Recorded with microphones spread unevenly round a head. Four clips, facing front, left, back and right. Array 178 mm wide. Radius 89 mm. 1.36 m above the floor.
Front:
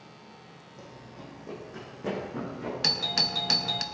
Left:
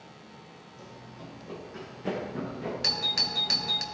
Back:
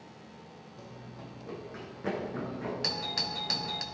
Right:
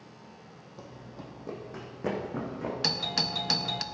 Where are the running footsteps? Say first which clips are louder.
Right 2 dB, front 2 dB; 65° right, 3.5 m; by 2.7 s 70° right, 6 m.